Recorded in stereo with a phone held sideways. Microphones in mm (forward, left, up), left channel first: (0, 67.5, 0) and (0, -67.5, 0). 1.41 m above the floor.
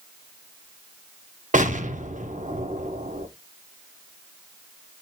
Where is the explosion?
70° right (ahead or behind), 0.8 m.